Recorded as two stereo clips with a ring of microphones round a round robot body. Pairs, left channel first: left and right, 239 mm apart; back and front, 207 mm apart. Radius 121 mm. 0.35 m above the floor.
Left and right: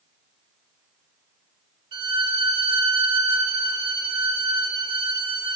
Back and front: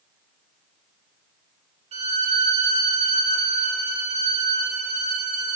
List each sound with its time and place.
1.9 s a violin: 35° right, 0.9 m